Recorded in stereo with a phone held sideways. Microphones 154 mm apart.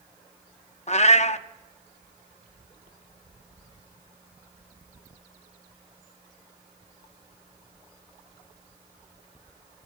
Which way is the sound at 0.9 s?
45° left (ahead or behind).